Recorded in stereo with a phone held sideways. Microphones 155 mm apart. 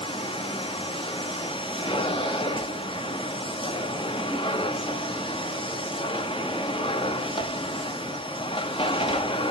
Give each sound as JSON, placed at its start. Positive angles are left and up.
{"t": 0.0, "sound": "a machine running", "side_deg": 35, "distance_m": 1.2}